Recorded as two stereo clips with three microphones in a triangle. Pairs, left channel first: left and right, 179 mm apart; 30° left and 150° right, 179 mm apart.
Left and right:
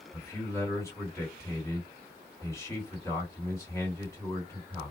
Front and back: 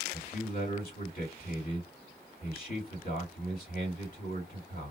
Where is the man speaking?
20° left, 2 m.